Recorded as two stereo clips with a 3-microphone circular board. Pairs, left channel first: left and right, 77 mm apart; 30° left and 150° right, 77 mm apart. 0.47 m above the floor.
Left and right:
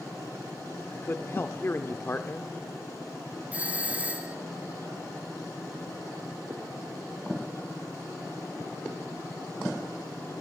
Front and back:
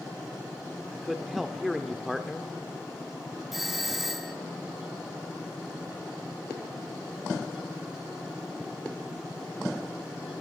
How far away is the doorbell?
About 1.9 m.